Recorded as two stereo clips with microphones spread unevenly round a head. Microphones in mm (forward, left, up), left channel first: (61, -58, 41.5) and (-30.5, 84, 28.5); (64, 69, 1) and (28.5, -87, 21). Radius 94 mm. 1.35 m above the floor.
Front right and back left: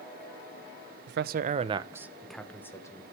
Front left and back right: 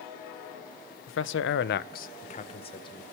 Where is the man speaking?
100° left, 0.6 m; by 3.0 s 10° left, 1.1 m.